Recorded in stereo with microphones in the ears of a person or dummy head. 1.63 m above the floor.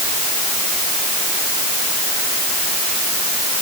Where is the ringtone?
I don't hear a ringtone.